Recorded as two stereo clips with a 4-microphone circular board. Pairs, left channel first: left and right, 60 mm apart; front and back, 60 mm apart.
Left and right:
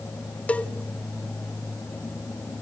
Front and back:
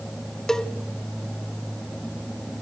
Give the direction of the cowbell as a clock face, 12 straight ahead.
10 o'clock.